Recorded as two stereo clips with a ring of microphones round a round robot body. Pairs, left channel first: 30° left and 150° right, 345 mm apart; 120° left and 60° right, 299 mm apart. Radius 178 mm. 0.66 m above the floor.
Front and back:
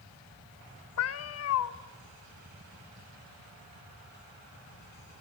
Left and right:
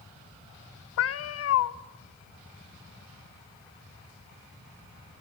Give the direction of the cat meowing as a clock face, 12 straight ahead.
9 o'clock.